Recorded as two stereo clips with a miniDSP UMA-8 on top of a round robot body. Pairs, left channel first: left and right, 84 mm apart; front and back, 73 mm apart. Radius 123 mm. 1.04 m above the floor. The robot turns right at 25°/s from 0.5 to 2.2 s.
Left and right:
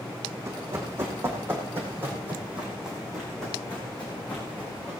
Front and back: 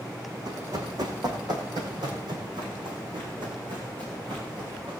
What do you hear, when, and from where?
0.5 s running footsteps: 150° right, 3.5 m; by 4.9 s 155° left, 5 m